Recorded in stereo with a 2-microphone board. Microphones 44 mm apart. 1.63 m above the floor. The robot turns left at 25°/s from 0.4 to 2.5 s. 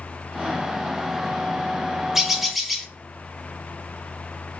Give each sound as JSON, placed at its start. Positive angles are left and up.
{"t": 2.1, "sound": "a bird", "side_deg": -5, "distance_m": 0.7}